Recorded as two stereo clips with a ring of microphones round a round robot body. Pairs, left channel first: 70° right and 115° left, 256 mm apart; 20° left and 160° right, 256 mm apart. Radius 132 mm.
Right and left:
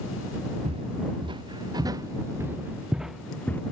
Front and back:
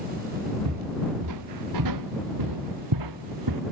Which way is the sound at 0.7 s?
Straight behind.